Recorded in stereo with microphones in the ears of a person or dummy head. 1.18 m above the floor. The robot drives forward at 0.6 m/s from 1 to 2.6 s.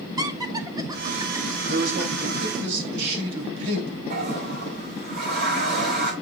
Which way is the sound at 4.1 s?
60° right (ahead or behind).